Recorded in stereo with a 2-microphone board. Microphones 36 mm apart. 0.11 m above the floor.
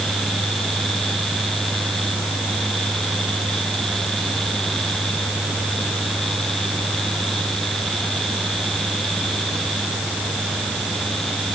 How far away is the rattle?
I don't hear a rattle.